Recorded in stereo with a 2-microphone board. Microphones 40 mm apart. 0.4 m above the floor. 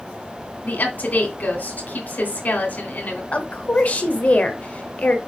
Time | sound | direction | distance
0.6 | a woman speaking | 45° left (ahead or behind) | 3 m
3.3 | a woman speaking | 35° left (ahead or behind) | 1.4 m